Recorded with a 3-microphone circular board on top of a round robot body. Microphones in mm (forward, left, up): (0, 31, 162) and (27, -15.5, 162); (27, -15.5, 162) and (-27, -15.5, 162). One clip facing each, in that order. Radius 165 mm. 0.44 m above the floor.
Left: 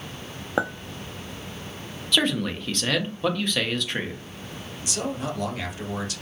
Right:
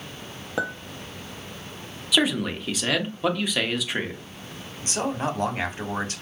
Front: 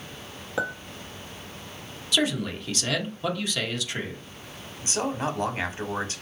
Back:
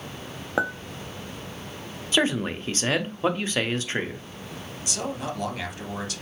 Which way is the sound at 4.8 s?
35° right.